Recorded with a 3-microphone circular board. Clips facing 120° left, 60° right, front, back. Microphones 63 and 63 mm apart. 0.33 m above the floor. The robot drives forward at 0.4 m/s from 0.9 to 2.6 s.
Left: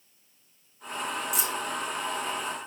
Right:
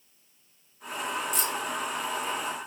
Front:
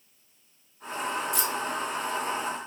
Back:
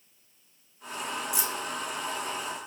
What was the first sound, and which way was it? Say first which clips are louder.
Keys jangling: even, front 3 dB; 170° right.